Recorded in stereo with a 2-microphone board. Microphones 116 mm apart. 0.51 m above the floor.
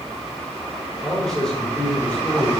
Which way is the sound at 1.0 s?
Centre (ahead or behind).